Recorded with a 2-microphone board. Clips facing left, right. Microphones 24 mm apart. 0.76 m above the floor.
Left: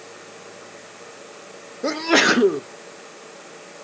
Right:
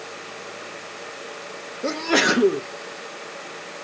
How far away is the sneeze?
About 0.6 m.